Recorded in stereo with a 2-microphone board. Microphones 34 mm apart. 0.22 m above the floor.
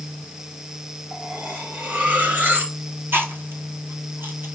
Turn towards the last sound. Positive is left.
turn(degrees=-90)